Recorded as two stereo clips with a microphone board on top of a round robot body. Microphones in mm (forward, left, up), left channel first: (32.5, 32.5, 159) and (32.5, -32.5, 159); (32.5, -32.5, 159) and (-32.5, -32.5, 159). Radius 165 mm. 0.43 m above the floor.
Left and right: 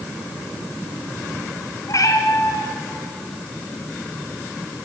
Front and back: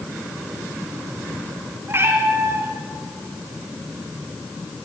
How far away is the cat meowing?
About 2.5 m.